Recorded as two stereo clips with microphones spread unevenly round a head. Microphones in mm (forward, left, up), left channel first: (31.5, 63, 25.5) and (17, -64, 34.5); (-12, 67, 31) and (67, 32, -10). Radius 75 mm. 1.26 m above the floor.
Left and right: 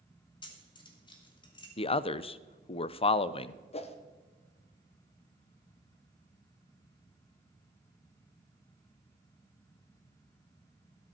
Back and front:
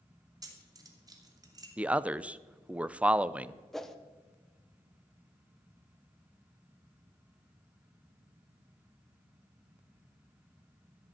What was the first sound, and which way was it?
Keys jangling, 25° left.